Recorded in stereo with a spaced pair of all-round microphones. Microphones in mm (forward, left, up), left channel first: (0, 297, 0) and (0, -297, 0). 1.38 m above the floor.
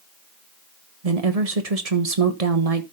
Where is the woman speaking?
80° right, 1.5 m.